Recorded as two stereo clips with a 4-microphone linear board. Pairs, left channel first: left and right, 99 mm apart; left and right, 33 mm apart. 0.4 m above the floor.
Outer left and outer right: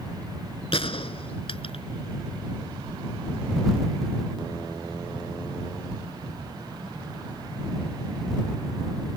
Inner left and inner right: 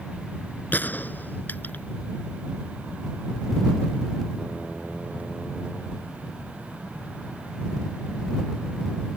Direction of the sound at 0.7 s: 70° left (ahead or behind).